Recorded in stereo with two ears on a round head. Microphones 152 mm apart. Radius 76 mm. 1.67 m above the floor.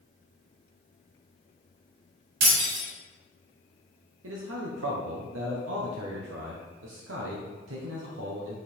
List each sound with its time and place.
2.4 s breaking glass: 75° right (ahead or behind), 4 m
4.2 s a man speaking: 75° right (ahead or behind), 1.3 m